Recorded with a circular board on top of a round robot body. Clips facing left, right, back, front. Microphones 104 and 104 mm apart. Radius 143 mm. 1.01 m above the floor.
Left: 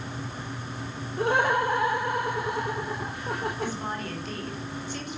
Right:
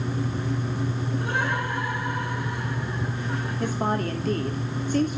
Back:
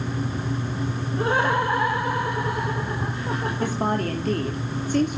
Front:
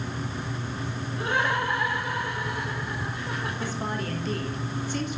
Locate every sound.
1.2 s laughter: 125° left, 3.5 m
3.6 s a woman speaking: 135° right, 2.5 m